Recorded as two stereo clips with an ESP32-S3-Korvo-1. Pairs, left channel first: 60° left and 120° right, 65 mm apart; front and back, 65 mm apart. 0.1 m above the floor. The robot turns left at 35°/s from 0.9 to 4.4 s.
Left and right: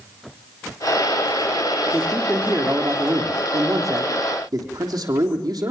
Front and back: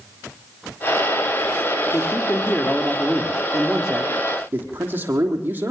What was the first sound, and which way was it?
A man speaking, 35° right.